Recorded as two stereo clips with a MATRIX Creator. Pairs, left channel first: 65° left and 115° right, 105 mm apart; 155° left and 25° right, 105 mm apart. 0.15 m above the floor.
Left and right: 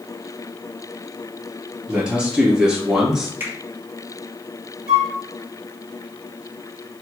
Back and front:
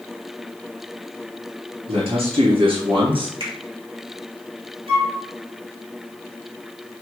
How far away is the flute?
About 2.5 m.